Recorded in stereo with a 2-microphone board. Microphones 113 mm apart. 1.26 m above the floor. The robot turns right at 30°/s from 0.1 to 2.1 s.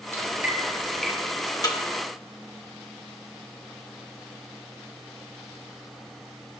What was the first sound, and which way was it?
Dripping, 25° right (ahead or behind).